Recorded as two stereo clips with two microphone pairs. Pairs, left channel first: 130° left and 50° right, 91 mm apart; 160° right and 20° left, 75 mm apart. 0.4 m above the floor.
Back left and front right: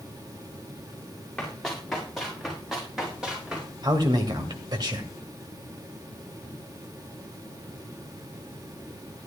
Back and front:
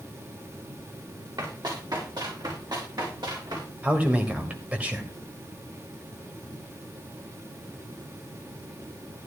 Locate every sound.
1.4 s running footsteps: 45° left, 5.5 m; by 3.7 s 30° left, 5.5 m
3.8 s a man speaking: 45° right, 2 m